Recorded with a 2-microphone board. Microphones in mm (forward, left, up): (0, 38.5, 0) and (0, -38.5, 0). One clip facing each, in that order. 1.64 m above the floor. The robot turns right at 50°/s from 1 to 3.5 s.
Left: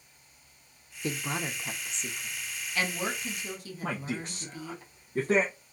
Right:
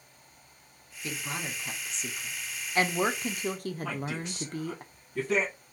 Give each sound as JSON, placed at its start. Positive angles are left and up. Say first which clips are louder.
{"t": 1.0, "sound": "a woman speaking", "louder": "left 3 dB", "azimuth_deg": 135, "distance_m": 0.6}
{"t": 3.8, "sound": "a man speaking", "louder": "left 4 dB", "side_deg": 40, "distance_m": 0.7}